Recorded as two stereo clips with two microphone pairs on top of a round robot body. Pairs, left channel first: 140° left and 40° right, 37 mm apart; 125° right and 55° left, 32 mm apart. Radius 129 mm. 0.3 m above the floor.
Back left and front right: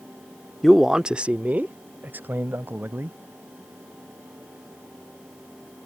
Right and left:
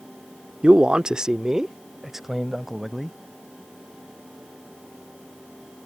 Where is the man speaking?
50° left; by 3.2 s 35° right.